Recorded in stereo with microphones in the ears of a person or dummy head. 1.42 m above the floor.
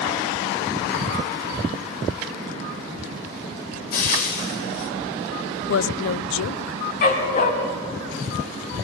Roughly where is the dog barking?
Left.